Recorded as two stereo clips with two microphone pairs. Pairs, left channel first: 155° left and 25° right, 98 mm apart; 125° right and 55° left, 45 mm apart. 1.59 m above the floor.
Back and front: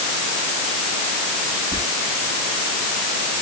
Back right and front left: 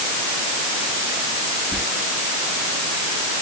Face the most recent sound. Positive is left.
turn(degrees=-55)